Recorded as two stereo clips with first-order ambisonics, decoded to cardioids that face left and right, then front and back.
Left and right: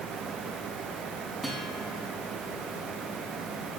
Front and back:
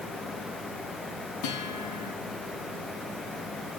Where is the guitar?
Straight ahead, 5 m.